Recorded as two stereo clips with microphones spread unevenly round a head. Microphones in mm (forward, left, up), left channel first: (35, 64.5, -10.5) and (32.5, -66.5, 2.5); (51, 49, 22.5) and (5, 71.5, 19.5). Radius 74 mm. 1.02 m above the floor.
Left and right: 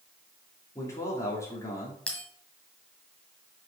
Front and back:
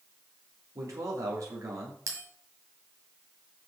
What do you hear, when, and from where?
0.8 s a man speaking: 160° left, 2.5 m
2.1 s a bell: 175° left, 1.5 m